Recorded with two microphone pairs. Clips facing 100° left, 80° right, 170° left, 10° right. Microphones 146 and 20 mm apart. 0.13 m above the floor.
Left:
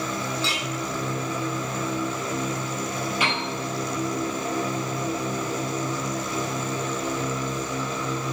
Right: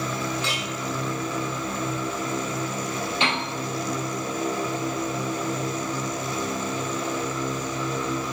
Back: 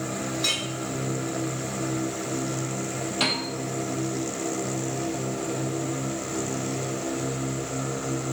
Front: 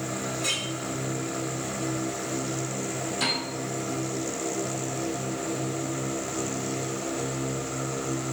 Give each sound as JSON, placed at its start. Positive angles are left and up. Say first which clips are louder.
{"t": 0.4, "sound": "a clink", "louder": "left 1 dB, back 3 dB", "azimuth_deg": -155, "distance_m": 3.0}
{"t": 3.2, "sound": "a piano", "louder": "right 2 dB, back 2 dB", "azimuth_deg": -140, "distance_m": 3.5}